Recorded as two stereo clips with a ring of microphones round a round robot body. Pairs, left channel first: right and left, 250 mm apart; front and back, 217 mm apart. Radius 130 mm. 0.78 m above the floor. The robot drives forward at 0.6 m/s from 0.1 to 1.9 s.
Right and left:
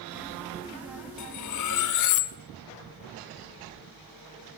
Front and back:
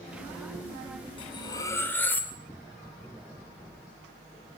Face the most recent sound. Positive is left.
turn(degrees=-80)